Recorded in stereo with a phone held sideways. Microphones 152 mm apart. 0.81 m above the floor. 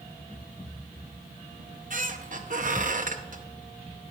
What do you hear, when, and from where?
1.6 s a squeak: 60° right (ahead or behind), 0.7 m